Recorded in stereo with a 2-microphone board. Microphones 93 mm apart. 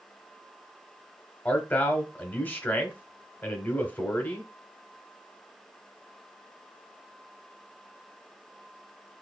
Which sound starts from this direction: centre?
A man speaking, at 1.4 s.